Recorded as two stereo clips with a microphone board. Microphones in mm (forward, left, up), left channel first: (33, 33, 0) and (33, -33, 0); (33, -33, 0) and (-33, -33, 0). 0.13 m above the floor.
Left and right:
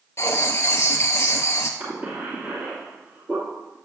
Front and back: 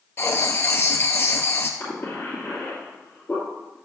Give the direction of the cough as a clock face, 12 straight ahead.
2 o'clock.